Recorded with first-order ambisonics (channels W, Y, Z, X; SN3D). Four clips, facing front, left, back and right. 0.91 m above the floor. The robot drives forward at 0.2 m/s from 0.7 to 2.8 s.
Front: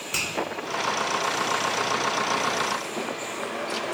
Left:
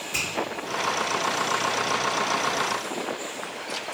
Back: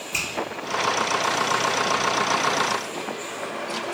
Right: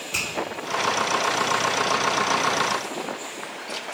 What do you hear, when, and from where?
0.1 s a finger snap: 25° right, 1.9 m